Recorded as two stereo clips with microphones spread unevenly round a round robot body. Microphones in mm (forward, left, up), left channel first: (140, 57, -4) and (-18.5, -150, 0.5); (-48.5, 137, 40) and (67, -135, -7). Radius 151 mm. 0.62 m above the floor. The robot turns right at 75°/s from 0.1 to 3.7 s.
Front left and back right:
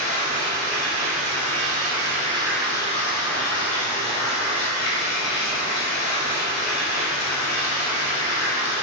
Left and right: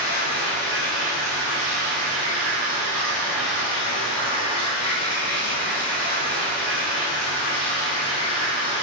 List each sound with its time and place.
0.0 s running water: 135° left, 1.4 m; by 8.8 s 45° left, 1.4 m